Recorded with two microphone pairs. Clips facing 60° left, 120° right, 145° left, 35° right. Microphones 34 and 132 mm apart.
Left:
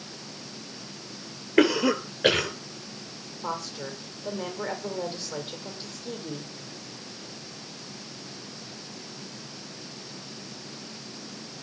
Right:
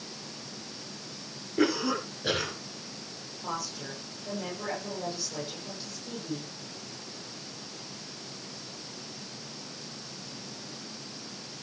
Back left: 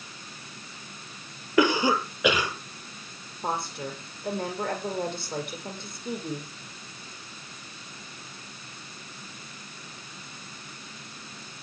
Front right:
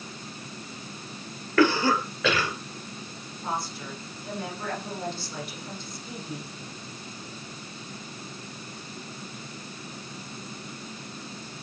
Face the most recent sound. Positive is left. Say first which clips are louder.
# left 3 dB, back left 2 dB
turn(degrees=110)